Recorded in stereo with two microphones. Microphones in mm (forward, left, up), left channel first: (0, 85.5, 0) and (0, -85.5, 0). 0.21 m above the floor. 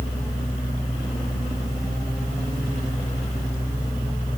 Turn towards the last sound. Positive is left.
No sound to turn to.